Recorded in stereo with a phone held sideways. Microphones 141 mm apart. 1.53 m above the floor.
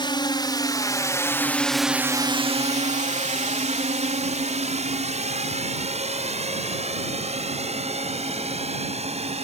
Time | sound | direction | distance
0.0 | a drone | 35° left (ahead or behind) | ?